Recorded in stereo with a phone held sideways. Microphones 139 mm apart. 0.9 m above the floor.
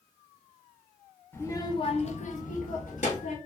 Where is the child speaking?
15° left (ahead or behind), 0.7 m; by 3.4 s 60° left (ahead or behind), 1.1 m.